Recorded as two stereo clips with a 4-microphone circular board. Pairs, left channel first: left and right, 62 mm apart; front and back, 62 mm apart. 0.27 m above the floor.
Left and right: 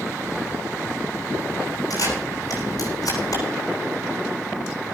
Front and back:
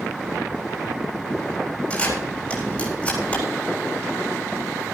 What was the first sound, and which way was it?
A camera shutter, 70° left.